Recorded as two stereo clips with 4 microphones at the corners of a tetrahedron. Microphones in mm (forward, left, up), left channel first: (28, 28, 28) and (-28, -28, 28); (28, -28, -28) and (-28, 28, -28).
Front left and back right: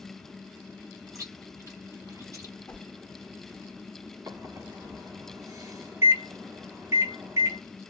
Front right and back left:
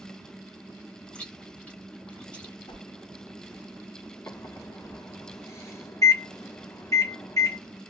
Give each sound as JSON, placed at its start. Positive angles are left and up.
{"t": 1.1, "sound": "chewing", "azimuth_deg": -115, "distance_m": 1.7}
{"t": 2.7, "sound": "a whoosh", "azimuth_deg": -30, "distance_m": 0.7}
{"t": 4.3, "sound": "a microwave", "azimuth_deg": -90, "distance_m": 1.1}